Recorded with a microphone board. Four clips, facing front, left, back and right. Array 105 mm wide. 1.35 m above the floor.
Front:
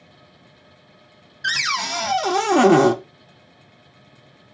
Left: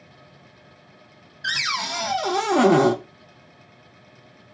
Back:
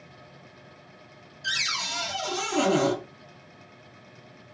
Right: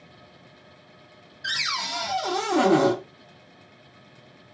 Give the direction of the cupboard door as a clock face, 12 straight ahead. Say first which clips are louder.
Left 3 dB, front 8 dB; 11 o'clock.